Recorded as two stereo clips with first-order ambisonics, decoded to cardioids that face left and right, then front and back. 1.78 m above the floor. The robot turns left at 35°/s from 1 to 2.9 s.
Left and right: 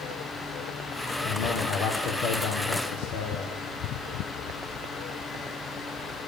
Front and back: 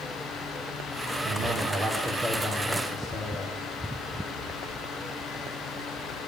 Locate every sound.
1.2 s a man speaking: 130° left, 1.3 m; by 3.5 s 70° left, 1.3 m